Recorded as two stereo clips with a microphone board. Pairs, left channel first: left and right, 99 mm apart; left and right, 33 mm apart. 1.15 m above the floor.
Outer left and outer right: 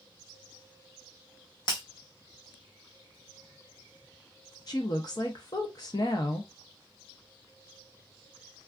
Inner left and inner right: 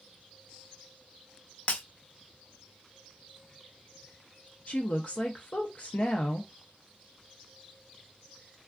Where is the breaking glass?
50° left (ahead or behind), 1.0 m.